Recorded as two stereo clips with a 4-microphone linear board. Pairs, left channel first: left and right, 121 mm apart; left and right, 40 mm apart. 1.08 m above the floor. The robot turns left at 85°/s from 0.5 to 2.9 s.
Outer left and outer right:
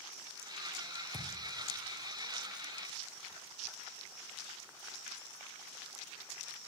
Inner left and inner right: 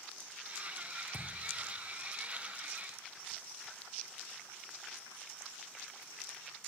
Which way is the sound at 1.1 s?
15° right (ahead or behind).